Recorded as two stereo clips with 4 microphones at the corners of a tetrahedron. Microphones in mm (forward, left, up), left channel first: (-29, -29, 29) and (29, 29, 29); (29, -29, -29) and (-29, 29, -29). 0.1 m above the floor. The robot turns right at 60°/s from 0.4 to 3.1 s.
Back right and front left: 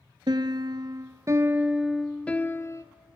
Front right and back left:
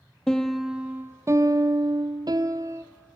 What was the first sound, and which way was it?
A piano, 35° left.